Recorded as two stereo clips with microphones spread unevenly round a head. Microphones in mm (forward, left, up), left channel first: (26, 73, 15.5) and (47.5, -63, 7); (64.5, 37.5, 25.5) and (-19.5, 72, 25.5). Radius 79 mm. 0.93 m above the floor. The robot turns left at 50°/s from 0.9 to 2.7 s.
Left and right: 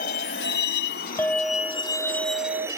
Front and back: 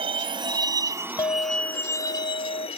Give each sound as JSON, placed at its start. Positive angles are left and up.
{"t": 0.0, "sound": "a vehicle", "azimuth_deg": 140}
{"t": 1.2, "sound": "a clink", "azimuth_deg": 25}